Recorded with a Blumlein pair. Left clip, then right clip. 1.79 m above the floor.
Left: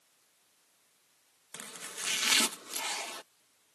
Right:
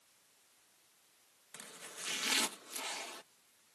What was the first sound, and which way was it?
Chopping, 20° left.